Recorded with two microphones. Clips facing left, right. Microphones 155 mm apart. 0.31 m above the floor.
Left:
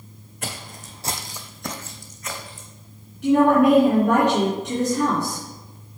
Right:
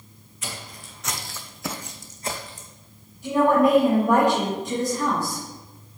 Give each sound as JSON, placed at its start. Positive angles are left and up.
{"t": 0.4, "sound": "footsteps", "side_deg": 60, "distance_m": 1.4}
{"t": 3.2, "sound": "a woman speaking", "side_deg": 75, "distance_m": 3.5}